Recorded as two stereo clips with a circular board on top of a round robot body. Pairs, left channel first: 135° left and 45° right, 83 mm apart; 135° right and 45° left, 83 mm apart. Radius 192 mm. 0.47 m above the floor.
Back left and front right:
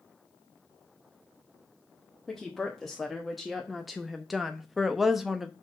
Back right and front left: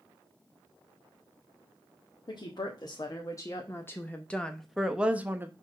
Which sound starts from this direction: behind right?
A woman speaking, at 2.3 s.